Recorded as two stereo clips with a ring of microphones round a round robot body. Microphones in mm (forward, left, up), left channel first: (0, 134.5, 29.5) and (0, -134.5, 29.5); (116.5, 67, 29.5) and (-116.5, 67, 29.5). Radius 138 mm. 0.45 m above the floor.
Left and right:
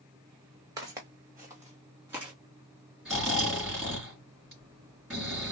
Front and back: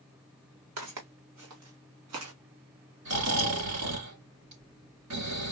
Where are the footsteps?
165° right, 1.6 m; by 2.3 s 170° right, 2.5 m.